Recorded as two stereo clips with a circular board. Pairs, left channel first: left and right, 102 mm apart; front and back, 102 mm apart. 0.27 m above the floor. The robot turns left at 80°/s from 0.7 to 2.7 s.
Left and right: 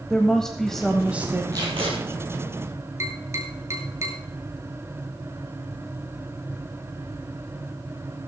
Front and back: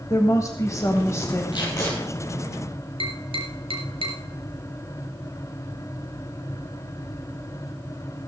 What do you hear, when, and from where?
0.1 s a woman speaking: 10° left, 1.3 m; by 1.4 s 50° right, 1.3 m
1.5 s tape being pulled: 40° right, 4.5 m; by 1.9 s 70° right, 4.5 m
3.0 s tapping: 150° right, 2.5 m